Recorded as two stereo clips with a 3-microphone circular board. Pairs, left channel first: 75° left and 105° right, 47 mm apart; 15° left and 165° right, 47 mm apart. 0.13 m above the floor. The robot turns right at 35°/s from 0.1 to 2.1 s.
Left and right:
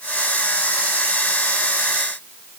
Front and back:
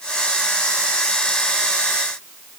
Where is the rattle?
I don't hear a rattle.